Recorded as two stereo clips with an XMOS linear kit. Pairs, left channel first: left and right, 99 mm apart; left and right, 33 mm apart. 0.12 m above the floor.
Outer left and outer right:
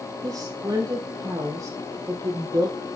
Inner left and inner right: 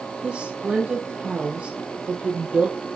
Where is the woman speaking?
40° right (ahead or behind), 4 m.